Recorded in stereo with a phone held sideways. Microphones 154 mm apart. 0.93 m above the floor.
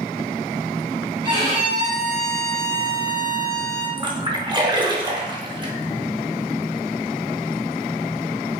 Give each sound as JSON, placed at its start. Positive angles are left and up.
{"t": 1.2, "sound": "a violin", "side_deg": -35, "distance_m": 2.0}
{"t": 4.0, "sound": "a splash", "side_deg": -30, "distance_m": 0.6}